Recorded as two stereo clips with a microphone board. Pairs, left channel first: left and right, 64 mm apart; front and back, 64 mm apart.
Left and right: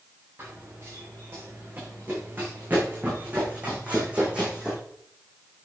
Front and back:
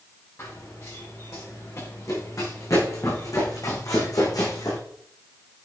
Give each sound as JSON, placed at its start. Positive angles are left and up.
{"t": 0.4, "sound": "running footsteps", "azimuth_deg": -40, "distance_m": 4.5}